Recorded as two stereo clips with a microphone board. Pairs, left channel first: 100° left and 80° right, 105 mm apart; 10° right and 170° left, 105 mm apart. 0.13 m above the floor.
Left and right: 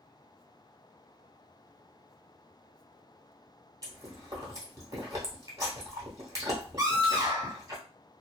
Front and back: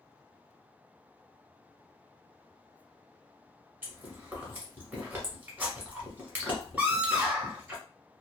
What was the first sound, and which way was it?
Chewing, 125° right.